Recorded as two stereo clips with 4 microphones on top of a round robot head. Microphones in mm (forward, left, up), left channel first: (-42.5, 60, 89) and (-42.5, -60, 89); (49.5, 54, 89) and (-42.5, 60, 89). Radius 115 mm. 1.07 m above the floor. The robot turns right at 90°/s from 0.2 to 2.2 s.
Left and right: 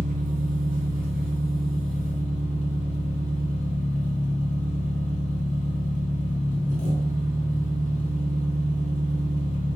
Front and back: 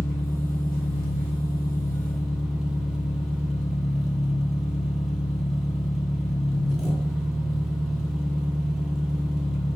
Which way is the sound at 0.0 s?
90° right.